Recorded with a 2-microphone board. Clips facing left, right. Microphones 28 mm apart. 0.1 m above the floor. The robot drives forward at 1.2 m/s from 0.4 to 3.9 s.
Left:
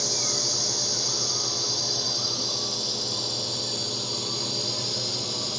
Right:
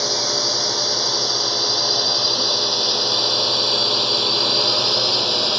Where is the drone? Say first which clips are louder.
Right 7 dB; 35° right (ahead or behind); by 5.6 s 50° right (ahead or behind).